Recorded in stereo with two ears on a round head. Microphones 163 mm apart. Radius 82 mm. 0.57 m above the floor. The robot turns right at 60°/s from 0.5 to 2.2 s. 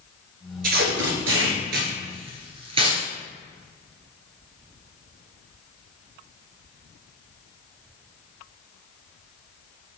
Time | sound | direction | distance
0.6 | tape being pulled | 55° right (ahead or behind) | 1.7 m